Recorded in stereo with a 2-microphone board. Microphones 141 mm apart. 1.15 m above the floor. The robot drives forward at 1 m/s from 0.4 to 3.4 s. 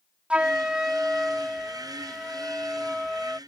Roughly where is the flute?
Centre.